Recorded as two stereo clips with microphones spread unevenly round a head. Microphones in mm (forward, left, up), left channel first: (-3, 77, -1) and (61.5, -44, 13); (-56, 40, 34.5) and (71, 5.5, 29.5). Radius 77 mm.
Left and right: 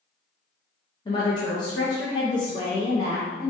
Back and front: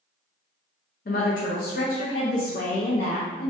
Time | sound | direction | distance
1.1 | a woman speaking | straight behind | 0.5 m